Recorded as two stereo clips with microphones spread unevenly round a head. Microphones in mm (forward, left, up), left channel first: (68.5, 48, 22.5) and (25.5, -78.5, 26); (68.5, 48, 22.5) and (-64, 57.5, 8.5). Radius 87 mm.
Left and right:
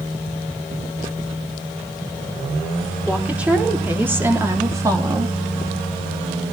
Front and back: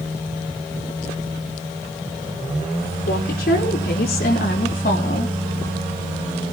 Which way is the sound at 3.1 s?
25° right.